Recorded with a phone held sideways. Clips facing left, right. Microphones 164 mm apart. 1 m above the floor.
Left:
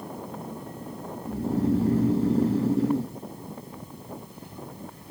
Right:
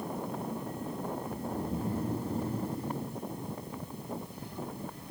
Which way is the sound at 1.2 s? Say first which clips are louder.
Left 10 dB; 70° left (ahead or behind).